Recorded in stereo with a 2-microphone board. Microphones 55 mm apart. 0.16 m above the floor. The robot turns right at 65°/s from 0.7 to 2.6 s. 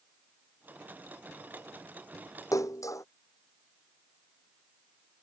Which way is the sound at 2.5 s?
80° left.